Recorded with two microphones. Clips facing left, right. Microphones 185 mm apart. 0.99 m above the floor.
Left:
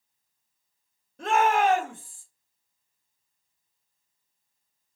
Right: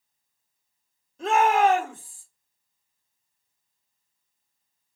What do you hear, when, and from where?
1.2 s a shout: 60° left (ahead or behind), 1.8 m